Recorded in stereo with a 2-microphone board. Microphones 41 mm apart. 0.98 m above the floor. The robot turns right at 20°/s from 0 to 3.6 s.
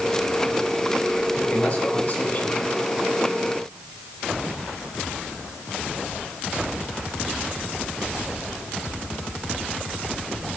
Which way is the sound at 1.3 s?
25° left (ahead or behind).